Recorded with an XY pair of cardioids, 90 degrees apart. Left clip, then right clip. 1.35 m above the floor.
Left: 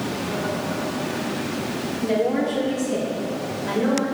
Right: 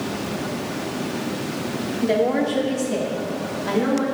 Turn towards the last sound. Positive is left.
turn(degrees=-40)